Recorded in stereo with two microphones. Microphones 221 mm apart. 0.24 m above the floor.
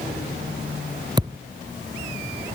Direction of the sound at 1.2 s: 20° right (ahead or behind).